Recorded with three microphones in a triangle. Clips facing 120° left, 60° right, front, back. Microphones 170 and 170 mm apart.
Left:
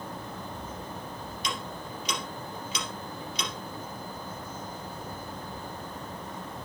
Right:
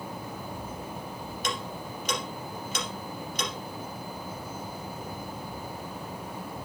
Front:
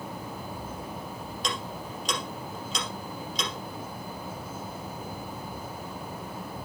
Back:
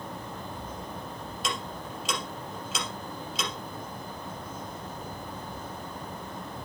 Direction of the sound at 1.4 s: 95° right.